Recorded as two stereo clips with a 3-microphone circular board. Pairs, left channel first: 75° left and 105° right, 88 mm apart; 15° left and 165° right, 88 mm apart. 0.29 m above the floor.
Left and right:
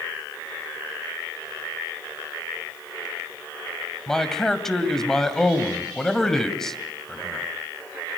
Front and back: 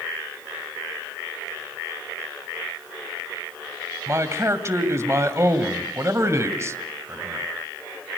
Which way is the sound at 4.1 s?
155° left.